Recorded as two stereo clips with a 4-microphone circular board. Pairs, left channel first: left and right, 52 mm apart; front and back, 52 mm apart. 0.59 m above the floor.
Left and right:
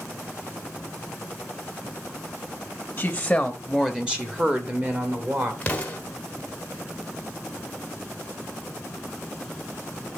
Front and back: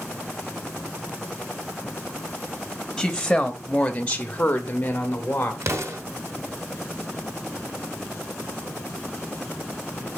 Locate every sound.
3.0 s a woman speaking: 90° left, 1.0 m; by 5.5 s 55° right, 1.7 m
5.6 s an explosion: 155° left, 1.2 m